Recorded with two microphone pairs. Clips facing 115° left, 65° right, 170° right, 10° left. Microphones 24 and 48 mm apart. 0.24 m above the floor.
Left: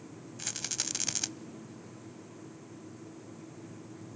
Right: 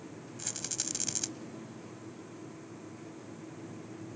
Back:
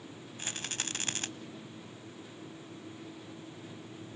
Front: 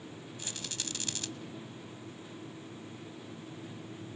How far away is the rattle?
About 0.5 m.